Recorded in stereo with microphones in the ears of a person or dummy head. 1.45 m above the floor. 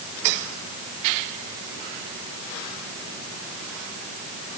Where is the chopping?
No chopping in this recording.